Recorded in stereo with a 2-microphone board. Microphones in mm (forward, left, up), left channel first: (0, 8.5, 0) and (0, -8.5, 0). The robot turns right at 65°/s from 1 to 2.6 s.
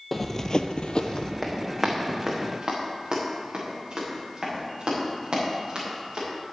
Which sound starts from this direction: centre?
Running footsteps, at 0.1 s.